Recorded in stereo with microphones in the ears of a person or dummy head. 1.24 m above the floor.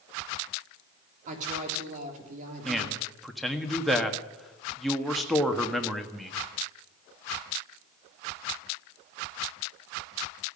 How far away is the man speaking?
About 1.6 m.